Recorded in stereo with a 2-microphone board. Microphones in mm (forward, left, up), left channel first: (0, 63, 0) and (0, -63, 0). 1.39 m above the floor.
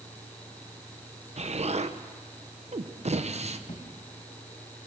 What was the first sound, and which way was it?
An explosion, 60° right (ahead or behind).